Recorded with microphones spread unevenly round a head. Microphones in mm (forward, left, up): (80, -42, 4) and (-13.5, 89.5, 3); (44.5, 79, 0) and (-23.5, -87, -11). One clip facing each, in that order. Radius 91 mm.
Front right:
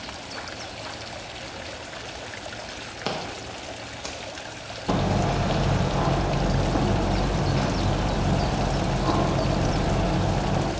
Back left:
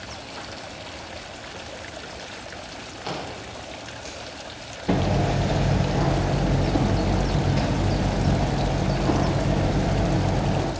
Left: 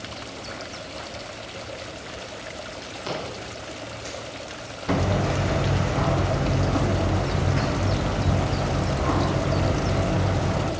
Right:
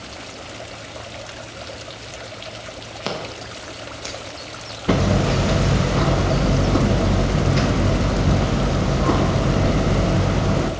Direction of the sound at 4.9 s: 155° right.